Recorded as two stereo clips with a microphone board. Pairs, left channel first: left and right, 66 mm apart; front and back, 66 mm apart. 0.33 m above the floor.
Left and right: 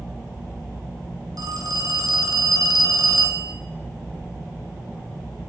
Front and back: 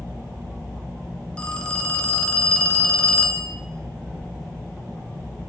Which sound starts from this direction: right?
A phone ringing, at 1.4 s.